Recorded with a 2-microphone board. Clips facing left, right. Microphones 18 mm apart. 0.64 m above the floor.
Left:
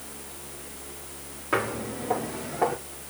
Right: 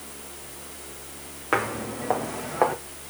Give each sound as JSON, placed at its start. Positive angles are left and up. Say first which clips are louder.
{"t": 1.5, "sound": "footsteps", "louder": "right 2 dB", "side_deg": -35, "distance_m": 2.5}